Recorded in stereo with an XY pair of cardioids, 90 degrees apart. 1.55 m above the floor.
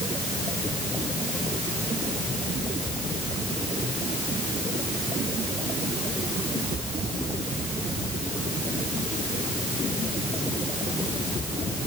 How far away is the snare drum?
I don't hear a snare drum.